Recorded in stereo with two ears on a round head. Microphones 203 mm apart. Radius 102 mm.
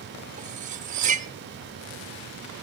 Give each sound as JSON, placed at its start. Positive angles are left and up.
{"t": 0.4, "sound": "cutlery clinking", "side_deg": -35, "distance_m": 0.9}